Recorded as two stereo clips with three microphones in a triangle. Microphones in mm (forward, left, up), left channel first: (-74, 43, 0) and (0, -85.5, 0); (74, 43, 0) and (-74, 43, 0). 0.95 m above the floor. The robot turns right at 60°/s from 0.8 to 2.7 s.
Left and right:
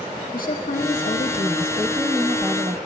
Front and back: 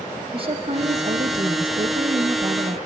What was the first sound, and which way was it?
A woman speaking, 130° left.